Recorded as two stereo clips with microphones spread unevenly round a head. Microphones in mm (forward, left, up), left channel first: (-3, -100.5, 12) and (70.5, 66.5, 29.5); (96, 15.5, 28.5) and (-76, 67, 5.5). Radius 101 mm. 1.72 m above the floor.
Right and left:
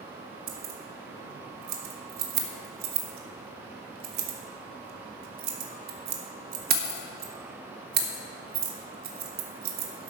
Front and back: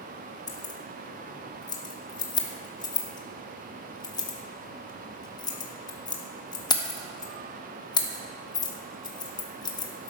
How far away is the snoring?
I don't hear snoring.